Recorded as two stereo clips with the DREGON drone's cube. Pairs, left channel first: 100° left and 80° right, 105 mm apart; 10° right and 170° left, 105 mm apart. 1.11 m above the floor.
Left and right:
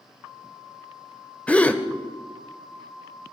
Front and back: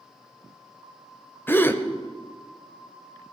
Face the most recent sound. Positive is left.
turn(degrees=35)